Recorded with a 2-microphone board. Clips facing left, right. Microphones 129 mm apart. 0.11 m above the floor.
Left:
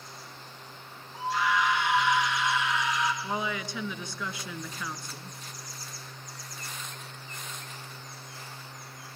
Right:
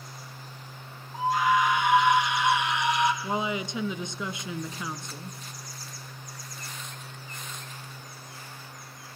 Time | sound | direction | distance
1.1 | a scream | 45° right (ahead or behind) | 5.5 m
3.2 | a woman speaking | 20° right (ahead or behind) | 1.1 m